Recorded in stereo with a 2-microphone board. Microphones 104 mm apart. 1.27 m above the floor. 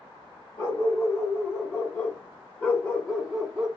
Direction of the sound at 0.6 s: 35° left (ahead or behind).